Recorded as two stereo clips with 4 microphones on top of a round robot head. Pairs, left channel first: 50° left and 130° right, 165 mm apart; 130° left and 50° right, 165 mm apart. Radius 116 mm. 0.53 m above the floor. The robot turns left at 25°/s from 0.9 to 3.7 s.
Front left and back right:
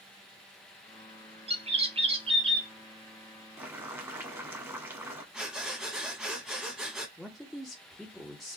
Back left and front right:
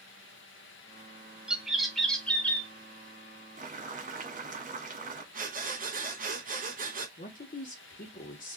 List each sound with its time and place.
1.5 s a bird: 130° right, 1.2 m; by 2.7 s 160° right, 1.2 m
3.6 s boiling: 55° right, 1.5 m; by 5.2 s 60° right, 1.5 m
5.3 s breathing: 45° right, 1.3 m
7.2 s a man speaking: 140° left, 1.3 m